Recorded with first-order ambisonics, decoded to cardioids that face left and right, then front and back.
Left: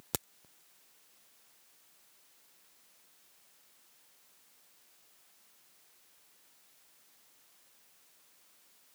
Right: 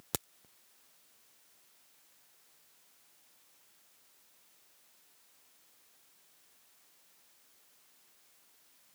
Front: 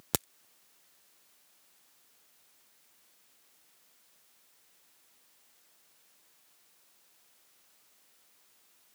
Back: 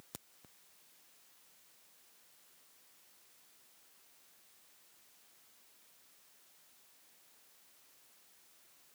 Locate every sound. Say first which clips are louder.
0.1 s a crack: even, front 20 dB; straight ahead